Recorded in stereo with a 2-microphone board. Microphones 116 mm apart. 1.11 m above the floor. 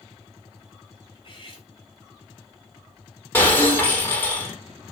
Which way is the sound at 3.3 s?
20° left (ahead or behind).